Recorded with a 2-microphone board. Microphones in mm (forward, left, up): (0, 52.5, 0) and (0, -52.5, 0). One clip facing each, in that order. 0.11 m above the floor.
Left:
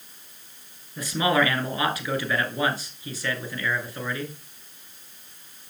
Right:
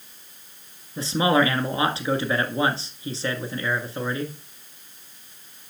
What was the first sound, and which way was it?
A man speaking, 30° right (ahead or behind).